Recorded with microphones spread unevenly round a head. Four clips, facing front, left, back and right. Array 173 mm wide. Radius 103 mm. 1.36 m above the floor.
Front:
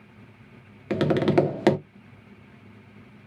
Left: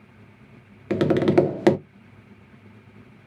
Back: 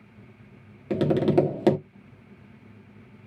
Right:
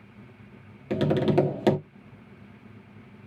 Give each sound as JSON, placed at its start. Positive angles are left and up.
{"t": 0.9, "sound": "tapping", "azimuth_deg": 5, "distance_m": 0.6}